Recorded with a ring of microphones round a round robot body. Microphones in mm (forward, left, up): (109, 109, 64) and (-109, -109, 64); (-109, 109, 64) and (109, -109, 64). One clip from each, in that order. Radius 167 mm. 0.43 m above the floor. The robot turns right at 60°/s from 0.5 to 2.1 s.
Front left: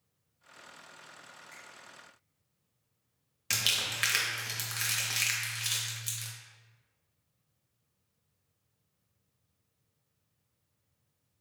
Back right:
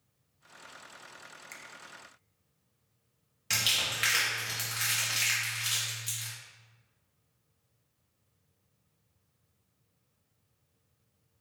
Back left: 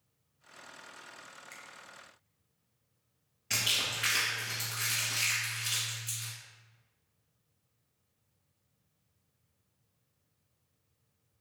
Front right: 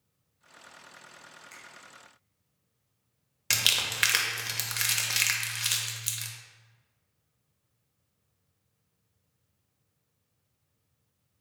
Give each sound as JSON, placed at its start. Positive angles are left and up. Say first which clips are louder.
{"t": 1.5, "sound": "a finger snap", "louder": "back right 4 dB, front right 1 dB", "azimuth_deg": -145, "distance_m": 0.6}
{"t": 3.5, "sound": "crumpling", "louder": "back right 1 dB, front right 5 dB", "azimuth_deg": -30, "distance_m": 0.7}